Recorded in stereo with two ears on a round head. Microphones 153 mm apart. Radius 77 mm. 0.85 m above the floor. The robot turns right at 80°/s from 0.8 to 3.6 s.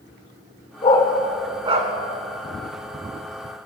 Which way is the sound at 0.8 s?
40° left (ahead or behind).